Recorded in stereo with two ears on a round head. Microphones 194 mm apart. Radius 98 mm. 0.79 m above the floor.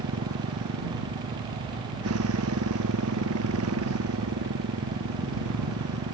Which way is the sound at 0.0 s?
70° right (ahead or behind).